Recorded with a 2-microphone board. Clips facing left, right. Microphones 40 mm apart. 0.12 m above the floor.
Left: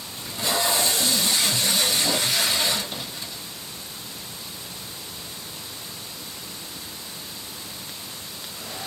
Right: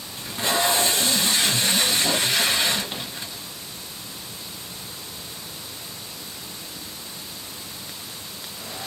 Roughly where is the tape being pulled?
Right.